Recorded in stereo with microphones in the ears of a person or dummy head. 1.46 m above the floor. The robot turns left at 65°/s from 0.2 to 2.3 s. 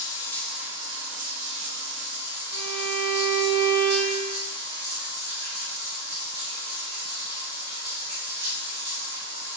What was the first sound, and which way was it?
Running water, 20° left.